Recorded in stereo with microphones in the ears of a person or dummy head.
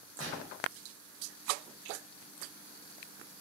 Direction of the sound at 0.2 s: 85° right.